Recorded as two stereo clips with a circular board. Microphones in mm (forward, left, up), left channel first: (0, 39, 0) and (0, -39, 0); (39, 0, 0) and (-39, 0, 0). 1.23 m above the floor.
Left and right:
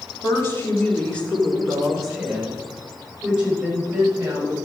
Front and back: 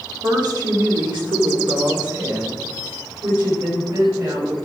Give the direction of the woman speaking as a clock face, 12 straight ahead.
7 o'clock.